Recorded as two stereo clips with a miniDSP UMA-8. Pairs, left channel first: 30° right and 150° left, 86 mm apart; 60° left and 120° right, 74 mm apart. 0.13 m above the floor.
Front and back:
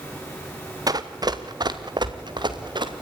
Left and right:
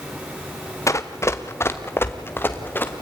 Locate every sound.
0.9 s running footsteps: 110° left, 1.5 m; by 3.0 s 125° left, 2.5 m